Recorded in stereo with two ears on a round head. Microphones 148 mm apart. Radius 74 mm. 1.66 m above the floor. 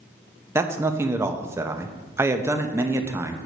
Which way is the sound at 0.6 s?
15° right (ahead or behind).